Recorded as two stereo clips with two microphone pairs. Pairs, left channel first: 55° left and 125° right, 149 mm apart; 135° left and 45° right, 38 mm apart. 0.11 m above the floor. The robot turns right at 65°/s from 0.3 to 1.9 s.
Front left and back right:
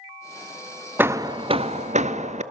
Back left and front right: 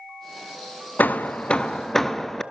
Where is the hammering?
160° left, 0.7 m; by 2.4 s 140° right, 0.7 m.